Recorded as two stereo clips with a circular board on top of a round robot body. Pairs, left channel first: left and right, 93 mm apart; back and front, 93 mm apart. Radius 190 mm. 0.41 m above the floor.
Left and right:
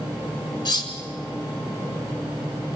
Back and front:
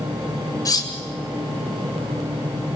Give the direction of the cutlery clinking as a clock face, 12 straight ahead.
8 o'clock.